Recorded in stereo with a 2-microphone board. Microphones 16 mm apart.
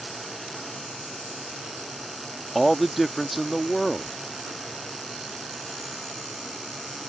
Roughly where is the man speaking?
Centre.